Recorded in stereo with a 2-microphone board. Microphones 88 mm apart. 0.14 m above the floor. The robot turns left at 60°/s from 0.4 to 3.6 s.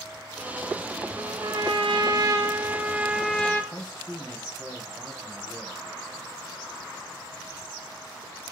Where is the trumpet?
60° right, 0.7 m; by 3.6 s 155° left, 0.7 m.